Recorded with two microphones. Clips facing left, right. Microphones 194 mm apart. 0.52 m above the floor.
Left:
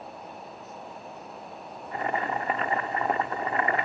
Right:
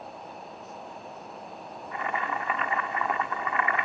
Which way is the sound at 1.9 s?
35° left (ahead or behind).